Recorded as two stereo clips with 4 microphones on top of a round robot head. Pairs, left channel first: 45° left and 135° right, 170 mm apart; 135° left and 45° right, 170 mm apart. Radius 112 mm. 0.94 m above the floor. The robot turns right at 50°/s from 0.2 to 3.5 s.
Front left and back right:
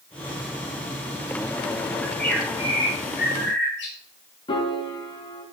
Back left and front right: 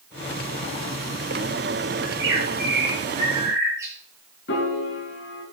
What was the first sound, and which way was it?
A bird, 45° right.